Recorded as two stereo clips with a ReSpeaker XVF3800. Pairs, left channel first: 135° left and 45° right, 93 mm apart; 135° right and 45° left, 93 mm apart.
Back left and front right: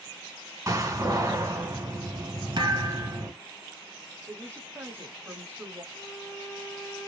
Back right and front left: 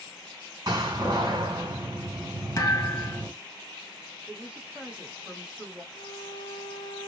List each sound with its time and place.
0.7 s a door slam: 5° left, 1.5 m
2.6 s a thud: 75° right, 1.0 m
4.3 s a woman speaking: 15° right, 1.1 m
5.9 s a violin: 165° right, 0.5 m